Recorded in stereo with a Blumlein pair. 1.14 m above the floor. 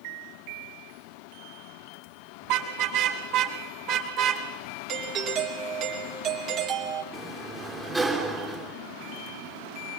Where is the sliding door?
10° right, 3.5 m.